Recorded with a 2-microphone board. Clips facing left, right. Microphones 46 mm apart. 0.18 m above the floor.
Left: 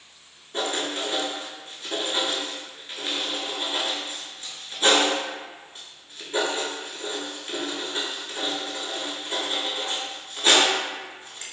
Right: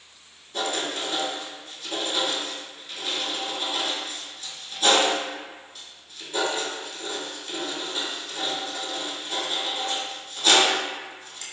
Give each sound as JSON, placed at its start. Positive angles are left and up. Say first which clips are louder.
{"t": 0.5, "sound": "writing", "louder": "left 1 dB", "side_deg": 40, "distance_m": 0.7}